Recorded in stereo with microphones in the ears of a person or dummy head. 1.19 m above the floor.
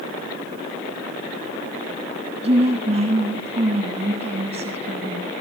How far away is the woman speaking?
About 7 m.